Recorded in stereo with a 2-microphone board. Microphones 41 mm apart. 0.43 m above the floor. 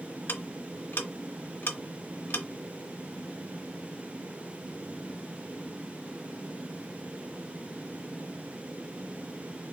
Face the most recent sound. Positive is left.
turn(degrees=60)  # may be behind; listen again after turning